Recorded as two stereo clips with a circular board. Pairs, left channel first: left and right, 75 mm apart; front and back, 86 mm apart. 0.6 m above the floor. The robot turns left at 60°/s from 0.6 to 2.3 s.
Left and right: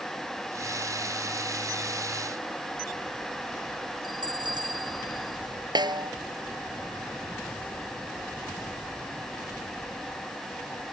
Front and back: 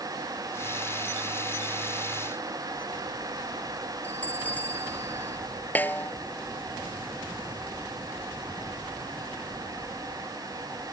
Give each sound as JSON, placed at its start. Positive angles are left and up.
{"t": 4.0, "sound": "a bell", "azimuth_deg": -75}
{"t": 5.8, "sound": "a snare drum", "azimuth_deg": -70}